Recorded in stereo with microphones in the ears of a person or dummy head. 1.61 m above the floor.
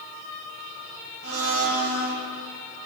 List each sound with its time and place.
1.2 s a blender: 85° right, 1.9 m